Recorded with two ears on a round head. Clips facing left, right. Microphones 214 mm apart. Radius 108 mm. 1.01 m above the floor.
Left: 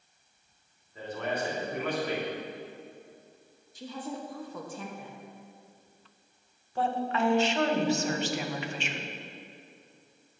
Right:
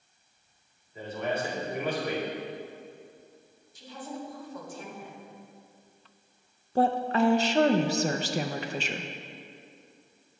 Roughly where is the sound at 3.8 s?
Left.